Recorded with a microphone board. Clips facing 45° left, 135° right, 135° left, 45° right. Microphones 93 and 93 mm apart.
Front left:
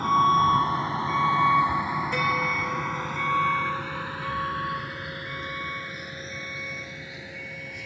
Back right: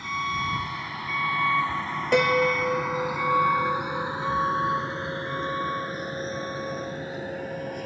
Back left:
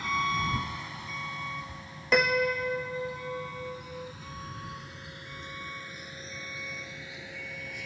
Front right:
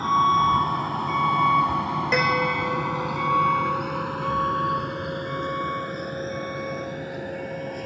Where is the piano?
135° right.